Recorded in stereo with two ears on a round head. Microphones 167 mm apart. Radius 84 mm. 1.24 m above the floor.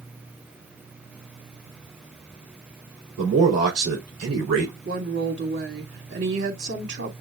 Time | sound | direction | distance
3.2 | a man speaking | 40° right (ahead or behind) | 3 m
4.8 | a woman speaking | 60° right (ahead or behind) | 2.5 m